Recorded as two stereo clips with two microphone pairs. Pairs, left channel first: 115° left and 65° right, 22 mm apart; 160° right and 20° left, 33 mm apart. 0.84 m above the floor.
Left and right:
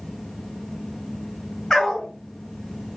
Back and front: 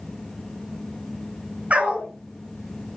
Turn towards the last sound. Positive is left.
turn(degrees=55)